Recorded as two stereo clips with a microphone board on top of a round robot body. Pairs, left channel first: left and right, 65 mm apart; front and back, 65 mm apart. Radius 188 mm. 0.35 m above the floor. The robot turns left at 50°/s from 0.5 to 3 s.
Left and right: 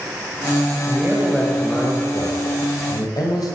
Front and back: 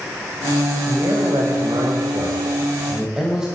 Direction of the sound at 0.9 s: 155° right.